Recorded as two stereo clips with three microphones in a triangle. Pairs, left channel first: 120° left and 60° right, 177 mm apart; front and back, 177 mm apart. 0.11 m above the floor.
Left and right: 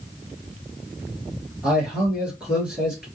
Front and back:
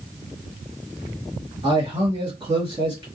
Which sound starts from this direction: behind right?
A man speaking, at 1.6 s.